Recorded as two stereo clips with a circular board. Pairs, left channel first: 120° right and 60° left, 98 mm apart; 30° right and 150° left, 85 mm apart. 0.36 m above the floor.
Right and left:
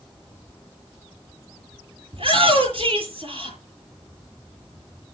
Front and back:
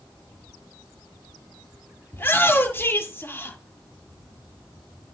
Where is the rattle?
No rattle in this recording.